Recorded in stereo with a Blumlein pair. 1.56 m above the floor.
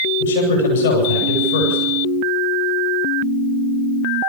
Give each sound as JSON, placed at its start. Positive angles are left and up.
{"t": 0.2, "sound": "a man speaking", "azimuth_deg": 65, "distance_m": 7.5}